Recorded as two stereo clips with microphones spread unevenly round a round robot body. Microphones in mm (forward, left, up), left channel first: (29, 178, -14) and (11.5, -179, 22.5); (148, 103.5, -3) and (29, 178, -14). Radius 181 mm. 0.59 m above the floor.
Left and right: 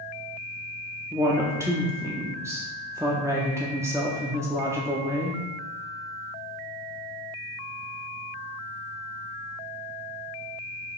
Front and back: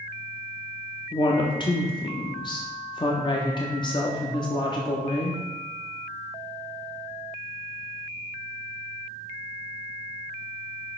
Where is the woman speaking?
5° right, 0.7 m.